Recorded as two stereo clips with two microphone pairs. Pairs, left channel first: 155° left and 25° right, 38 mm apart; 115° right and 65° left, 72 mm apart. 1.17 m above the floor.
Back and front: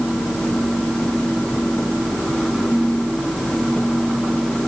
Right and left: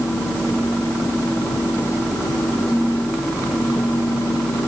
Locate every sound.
Only background noise.